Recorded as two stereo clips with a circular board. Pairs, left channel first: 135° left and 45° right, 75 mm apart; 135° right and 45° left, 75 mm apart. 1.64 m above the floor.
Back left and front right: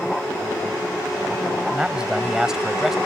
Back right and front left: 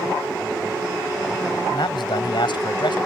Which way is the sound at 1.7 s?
120° right.